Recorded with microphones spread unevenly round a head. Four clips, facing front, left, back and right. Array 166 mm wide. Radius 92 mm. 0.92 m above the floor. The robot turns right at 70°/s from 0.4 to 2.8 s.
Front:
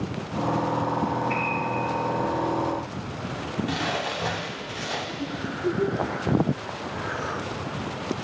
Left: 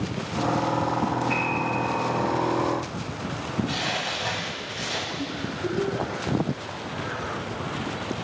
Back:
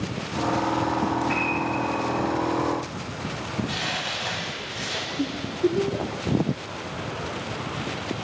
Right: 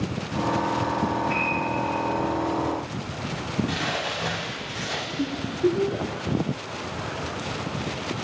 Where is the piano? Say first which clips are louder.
Even, back 1 dB; straight behind, 5.5 m; by 1.6 s 155° right, 5.5 m.